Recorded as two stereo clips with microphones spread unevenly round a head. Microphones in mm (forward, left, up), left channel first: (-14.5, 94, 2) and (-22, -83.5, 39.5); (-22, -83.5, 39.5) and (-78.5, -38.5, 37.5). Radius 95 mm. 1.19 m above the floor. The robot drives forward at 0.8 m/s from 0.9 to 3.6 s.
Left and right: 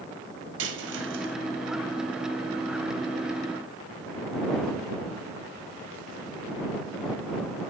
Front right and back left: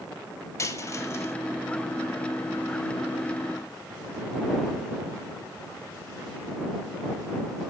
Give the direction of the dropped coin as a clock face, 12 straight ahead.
3 o'clock.